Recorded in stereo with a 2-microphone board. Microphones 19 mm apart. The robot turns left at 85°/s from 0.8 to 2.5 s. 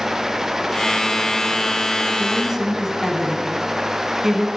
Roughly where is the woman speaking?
Centre.